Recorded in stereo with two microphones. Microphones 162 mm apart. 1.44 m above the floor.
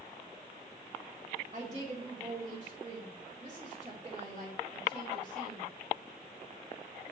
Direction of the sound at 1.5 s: 45° right (ahead or behind).